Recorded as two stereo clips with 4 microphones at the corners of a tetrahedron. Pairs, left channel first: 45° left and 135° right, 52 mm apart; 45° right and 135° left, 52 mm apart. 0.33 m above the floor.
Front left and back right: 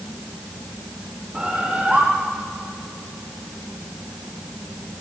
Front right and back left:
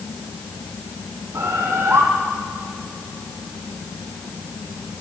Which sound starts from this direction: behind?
A bird, at 1.3 s.